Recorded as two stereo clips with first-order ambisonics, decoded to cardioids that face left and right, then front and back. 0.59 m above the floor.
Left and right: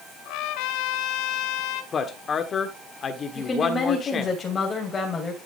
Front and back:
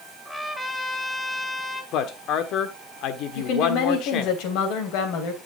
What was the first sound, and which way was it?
A trumpet, 85° left.